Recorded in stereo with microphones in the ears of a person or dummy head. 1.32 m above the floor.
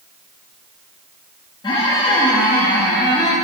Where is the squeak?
20° left (ahead or behind), 0.9 m.